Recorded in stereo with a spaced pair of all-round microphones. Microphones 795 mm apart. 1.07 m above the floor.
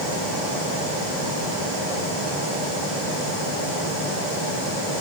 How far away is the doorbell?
No doorbell in this recording.